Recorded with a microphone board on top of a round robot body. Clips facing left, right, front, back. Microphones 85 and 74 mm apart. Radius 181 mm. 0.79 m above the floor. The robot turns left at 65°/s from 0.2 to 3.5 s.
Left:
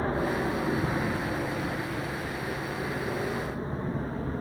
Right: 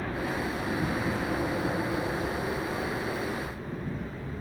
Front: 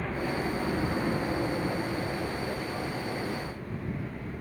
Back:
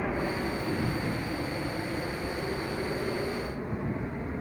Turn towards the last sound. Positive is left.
turn(degrees=120)